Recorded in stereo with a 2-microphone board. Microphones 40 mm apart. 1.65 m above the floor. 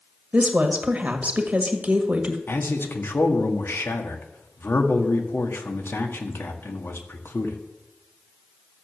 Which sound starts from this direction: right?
A woman speaking, at 0.3 s.